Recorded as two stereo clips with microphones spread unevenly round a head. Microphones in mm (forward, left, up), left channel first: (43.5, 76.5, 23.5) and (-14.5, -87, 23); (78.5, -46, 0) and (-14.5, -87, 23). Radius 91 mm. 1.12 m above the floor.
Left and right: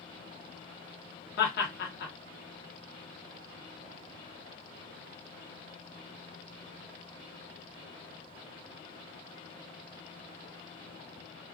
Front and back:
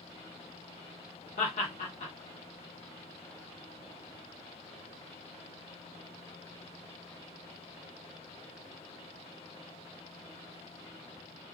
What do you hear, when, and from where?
1.4 s laughter: 40° left, 0.9 m